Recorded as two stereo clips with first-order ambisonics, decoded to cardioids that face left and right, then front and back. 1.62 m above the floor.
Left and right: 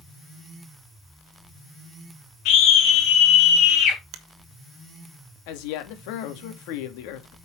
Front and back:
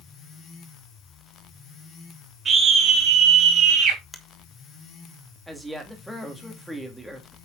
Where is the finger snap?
85° right, 1.3 m.